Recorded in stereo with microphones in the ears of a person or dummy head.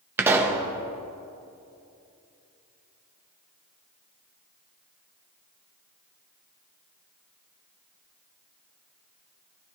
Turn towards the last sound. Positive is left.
turn(degrees=-15)  # may be behind; listen again after turning